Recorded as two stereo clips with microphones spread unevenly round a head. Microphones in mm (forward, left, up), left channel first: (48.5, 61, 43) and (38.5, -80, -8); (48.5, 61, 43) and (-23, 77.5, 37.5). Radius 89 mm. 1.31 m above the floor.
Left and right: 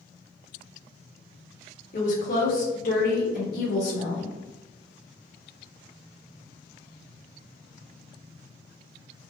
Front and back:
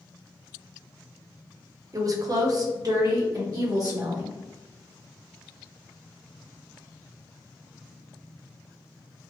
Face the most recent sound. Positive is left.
turn(degrees=130)